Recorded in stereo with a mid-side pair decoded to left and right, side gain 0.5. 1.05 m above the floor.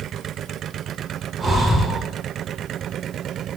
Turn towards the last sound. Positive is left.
turn(degrees=-35)